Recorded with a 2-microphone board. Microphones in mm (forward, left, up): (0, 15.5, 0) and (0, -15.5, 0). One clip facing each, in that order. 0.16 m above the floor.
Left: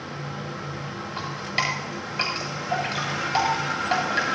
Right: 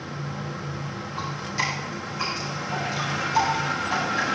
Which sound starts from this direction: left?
Dripping, at 1.2 s.